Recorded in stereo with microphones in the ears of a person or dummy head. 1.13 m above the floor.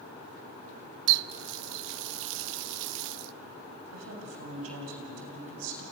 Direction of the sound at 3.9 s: 85° right.